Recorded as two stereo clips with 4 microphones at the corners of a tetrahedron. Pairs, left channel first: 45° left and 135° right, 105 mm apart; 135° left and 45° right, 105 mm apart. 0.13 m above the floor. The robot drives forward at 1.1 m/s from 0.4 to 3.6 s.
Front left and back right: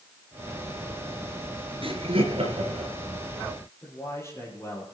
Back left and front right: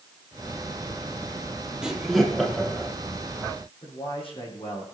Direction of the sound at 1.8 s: 130° right.